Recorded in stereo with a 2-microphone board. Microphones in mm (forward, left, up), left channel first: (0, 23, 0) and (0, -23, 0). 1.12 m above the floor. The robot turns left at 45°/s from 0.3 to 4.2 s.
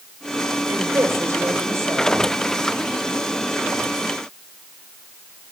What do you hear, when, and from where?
0.7 s a woman speaking: 50° right, 5.5 m; by 2.3 s 125° right, 5.5 m